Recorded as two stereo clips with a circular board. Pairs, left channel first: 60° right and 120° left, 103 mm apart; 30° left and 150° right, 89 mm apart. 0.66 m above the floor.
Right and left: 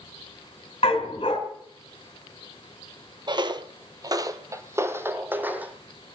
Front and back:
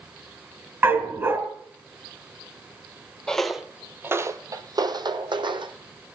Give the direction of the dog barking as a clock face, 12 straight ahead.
3 o'clock.